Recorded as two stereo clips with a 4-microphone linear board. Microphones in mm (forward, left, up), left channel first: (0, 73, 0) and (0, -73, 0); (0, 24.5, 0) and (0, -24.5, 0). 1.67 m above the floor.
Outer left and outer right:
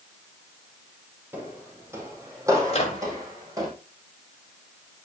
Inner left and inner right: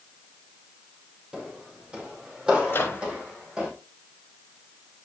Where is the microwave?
45° left (ahead or behind), 3 m.